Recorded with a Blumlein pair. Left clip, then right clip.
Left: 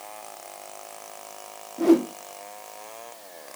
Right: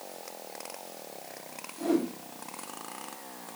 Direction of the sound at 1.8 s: 60° left.